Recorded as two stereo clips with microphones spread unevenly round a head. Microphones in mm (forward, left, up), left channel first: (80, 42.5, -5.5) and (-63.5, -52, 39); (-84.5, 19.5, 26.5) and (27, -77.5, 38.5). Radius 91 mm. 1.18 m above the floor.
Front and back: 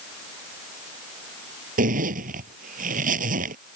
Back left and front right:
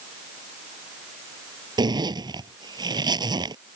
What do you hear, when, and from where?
1.8 s a zipper: 105° right